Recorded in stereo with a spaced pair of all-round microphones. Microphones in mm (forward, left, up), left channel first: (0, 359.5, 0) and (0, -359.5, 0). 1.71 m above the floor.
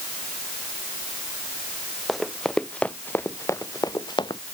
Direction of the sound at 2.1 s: Centre (ahead or behind).